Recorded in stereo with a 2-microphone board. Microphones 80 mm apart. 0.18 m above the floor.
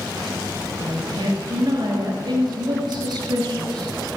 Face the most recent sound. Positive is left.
turn(degrees=-60)  # may be behind; listen again after turning